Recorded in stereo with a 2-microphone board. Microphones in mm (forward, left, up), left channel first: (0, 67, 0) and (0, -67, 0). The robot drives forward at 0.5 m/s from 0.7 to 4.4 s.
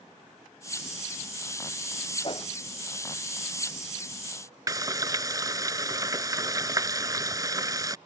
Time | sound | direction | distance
2.2 | a whoosh | 40° left (ahead or behind) | ?
4.7 | frying | 25° right (ahead or behind) | ?